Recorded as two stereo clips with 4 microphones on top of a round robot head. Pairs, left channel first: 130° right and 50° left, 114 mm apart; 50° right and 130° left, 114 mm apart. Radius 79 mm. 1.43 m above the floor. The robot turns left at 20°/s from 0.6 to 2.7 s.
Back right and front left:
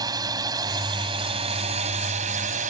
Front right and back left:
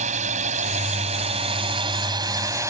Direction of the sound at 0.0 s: 105° left.